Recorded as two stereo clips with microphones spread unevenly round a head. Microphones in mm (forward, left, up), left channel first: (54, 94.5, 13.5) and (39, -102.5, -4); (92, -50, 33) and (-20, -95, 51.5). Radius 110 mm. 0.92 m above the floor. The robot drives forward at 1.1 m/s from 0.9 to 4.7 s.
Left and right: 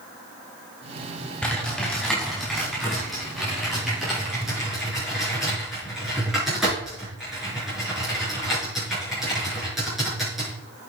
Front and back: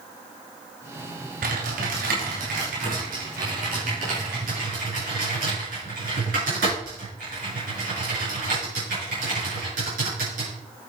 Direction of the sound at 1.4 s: 170° left.